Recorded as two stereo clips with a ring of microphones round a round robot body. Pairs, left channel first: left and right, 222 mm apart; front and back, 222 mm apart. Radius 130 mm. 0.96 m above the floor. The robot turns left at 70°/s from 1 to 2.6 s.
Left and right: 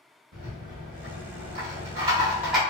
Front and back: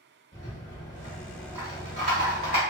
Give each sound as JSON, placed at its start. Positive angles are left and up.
{"t": 0.3, "sound": "a rattle", "azimuth_deg": -65, "distance_m": 0.7}